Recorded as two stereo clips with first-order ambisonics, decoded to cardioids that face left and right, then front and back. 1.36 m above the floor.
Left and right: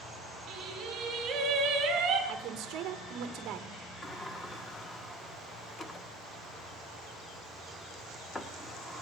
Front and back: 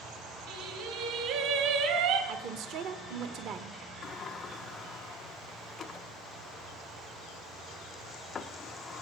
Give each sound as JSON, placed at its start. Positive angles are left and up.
{"t": 0.5, "sound": "singing", "azimuth_deg": -160, "distance_m": 4.0}
{"t": 2.3, "sound": "a woman speaking", "azimuth_deg": -135, "distance_m": 1.0}
{"t": 4.0, "sound": "a sliding door", "azimuth_deg": 35, "distance_m": 0.7}